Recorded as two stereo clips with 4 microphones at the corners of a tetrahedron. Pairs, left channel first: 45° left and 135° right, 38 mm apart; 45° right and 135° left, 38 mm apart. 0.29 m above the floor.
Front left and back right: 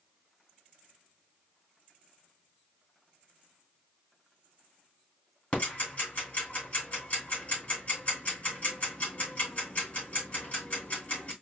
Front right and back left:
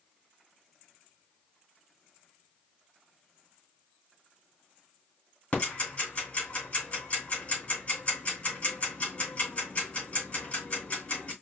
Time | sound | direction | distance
5.5 | ticking | 5° right | 3 m